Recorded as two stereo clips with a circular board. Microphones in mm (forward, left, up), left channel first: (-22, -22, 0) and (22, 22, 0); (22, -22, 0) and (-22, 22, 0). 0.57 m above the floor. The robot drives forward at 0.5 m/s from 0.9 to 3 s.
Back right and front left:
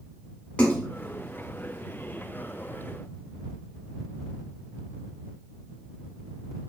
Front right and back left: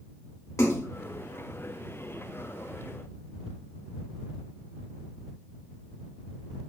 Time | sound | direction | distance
0.6 | a splash | 70° right | 1.7 m